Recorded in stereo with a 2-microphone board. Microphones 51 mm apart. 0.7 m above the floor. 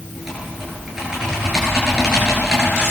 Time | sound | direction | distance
0.1 | typing on a keyboard | 10° right (ahead or behind) | 10 m